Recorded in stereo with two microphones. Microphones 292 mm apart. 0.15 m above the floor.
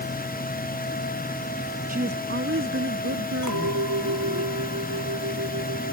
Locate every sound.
1.9 s a woman speaking: 30° right (ahead or behind); by 4.4 s 55° right (ahead or behind)
3.4 s a clink: 80° right